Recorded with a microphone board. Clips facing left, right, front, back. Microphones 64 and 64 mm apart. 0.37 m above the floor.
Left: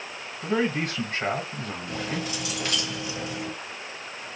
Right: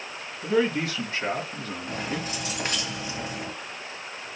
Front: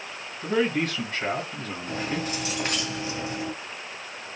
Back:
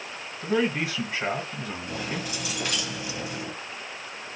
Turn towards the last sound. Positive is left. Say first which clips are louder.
# even, front 5 dB
turn(degrees=-40)